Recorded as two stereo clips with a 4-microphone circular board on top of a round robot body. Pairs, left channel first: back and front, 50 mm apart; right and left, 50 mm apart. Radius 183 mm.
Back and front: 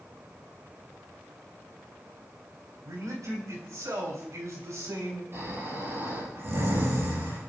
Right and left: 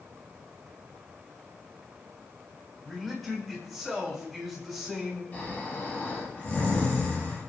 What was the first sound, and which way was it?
A man speaking, straight ahead.